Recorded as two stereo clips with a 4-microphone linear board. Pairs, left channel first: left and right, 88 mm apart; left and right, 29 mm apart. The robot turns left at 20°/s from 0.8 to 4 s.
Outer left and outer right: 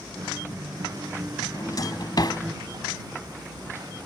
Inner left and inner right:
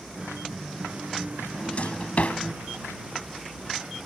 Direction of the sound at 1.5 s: 45° left (ahead or behind).